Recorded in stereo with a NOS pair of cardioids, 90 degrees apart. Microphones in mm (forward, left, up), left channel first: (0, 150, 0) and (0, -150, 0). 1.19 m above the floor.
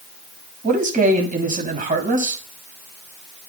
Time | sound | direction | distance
0.6 | a man speaking | 25° right | 6 m